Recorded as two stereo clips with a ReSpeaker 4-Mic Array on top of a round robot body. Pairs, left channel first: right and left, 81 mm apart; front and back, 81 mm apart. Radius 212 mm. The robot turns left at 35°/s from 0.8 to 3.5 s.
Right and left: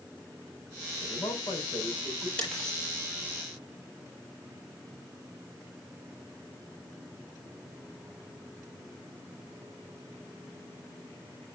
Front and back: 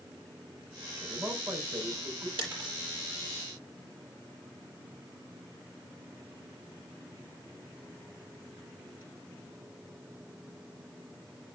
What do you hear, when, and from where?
1.0 s a man speaking: 100° right, 4.5 m; by 2.3 s 150° right, 4.5 m
2.4 s breaking glass: 165° right, 8 m; by 2.8 s straight behind, 8 m